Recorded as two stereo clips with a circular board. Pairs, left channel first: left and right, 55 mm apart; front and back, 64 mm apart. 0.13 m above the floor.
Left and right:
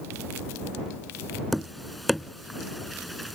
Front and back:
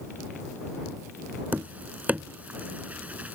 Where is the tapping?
Straight behind.